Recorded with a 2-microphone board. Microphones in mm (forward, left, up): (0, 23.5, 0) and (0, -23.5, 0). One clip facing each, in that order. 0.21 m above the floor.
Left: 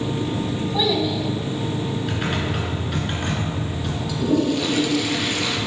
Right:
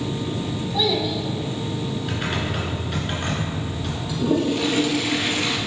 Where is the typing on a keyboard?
Centre (ahead or behind), 2 m.